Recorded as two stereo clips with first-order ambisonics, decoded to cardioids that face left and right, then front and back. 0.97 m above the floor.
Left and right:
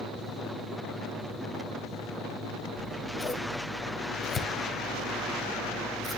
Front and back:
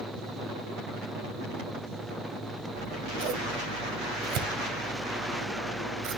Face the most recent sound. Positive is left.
turn(degrees=160)